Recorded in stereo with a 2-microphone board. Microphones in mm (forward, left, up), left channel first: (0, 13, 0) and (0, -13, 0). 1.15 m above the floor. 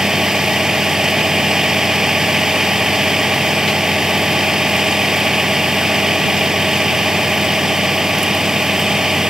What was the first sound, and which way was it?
A vehicle, 20° right (ahead or behind).